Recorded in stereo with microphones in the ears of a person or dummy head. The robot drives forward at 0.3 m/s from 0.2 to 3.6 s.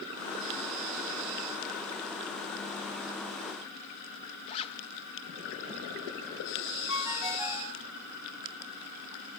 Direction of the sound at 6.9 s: 20° right (ahead or behind).